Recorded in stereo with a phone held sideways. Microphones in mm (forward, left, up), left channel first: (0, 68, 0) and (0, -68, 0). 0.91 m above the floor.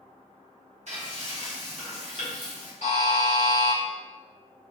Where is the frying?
60° right (ahead or behind), 1.4 m.